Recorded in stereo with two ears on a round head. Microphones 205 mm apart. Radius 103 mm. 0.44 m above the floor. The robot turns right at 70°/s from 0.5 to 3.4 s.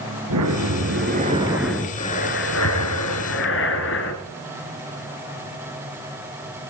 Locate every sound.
0.3 s breathing: 85° right, 3 m; by 4.1 s 120° left, 3 m